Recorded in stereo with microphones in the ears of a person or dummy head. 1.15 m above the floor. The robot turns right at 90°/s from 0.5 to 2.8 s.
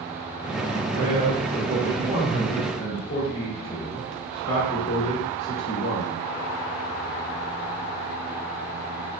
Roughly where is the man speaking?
Behind right.